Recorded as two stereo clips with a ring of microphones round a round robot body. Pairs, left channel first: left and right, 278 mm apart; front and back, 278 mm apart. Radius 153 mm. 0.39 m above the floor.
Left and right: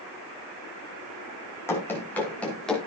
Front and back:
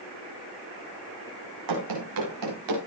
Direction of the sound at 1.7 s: 170° left.